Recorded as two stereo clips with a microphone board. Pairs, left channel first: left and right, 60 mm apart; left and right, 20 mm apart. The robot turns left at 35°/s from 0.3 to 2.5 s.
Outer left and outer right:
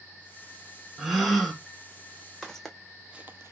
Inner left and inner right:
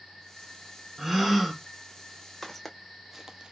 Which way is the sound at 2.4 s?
5° left (ahead or behind).